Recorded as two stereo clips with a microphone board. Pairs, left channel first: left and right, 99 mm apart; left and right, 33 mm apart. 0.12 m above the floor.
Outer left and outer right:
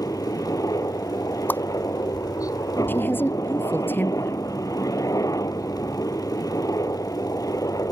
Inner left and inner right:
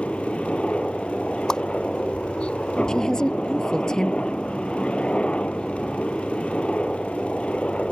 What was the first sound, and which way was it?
A helicopter, 35° left (ahead or behind).